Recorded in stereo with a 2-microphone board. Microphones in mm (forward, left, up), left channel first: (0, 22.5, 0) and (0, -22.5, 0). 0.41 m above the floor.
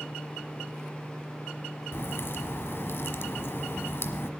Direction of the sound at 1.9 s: 60° left (ahead or behind).